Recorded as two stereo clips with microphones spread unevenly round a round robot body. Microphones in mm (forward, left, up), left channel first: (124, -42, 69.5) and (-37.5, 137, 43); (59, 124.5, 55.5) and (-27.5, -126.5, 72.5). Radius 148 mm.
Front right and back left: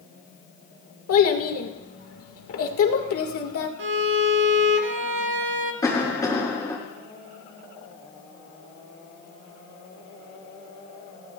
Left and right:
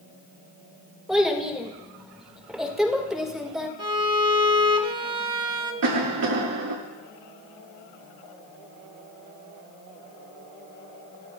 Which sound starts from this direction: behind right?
A cough, at 5.8 s.